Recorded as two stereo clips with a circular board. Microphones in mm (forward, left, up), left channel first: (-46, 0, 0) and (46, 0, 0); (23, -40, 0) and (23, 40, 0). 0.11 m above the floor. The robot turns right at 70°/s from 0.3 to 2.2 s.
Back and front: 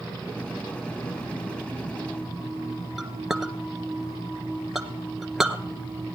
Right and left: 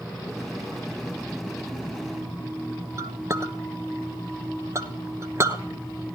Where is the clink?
85° left, 1.0 m.